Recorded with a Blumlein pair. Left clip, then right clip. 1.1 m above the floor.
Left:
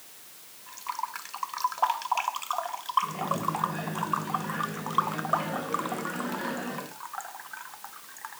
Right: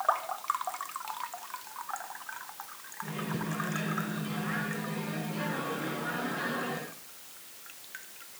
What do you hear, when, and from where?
3.0 s a microwave: 15° right, 7.5 m